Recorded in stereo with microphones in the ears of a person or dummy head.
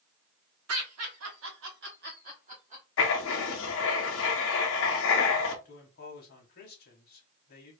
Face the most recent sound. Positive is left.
turn(degrees=45)  # may be behind; listen again after turning